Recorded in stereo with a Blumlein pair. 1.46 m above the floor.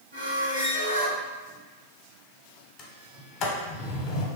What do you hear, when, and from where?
0.1 s a squeak: 65° right, 1.1 m
2.8 s a sliding door: 30° left, 0.7 m